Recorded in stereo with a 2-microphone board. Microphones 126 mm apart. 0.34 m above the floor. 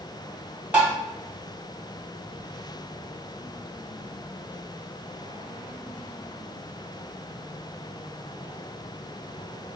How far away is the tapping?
About 1.8 m.